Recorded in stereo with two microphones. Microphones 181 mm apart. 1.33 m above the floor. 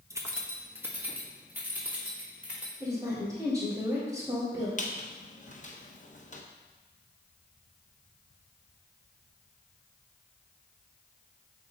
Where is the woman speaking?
20° right (ahead or behind), 4 m.